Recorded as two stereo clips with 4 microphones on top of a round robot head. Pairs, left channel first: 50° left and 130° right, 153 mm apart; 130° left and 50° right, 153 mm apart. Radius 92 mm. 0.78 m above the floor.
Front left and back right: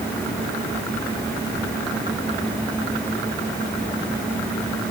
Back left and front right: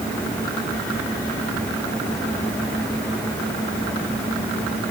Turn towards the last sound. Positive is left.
No sound to turn to.